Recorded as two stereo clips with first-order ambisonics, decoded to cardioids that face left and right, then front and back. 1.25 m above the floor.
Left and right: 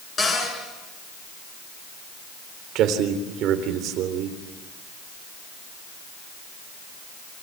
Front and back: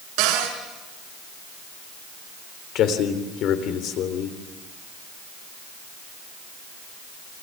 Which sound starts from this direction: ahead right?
A man speaking, at 2.8 s.